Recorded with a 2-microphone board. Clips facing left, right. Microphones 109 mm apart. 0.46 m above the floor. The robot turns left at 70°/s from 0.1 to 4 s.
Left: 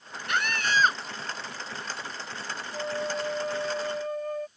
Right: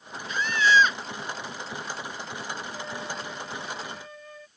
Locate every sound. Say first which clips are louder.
0.3 s a scream: right 5 dB; 85° left; by 1.0 s 35° left
2.7 s a flute: left 5 dB; 150° left; by 4.5 s 60° left